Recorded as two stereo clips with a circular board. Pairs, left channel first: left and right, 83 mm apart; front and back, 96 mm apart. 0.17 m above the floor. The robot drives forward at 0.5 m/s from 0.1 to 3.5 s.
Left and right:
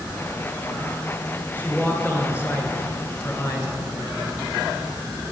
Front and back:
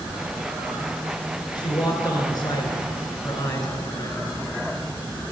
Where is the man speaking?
30° left, 2.5 m; by 4.4 s 50° left, 1.7 m.